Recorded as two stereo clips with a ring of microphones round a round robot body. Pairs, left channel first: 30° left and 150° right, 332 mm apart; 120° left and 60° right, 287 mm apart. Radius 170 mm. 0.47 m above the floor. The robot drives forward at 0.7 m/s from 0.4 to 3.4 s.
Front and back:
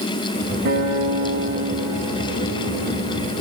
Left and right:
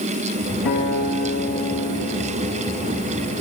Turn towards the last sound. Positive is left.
turn(degrees=165)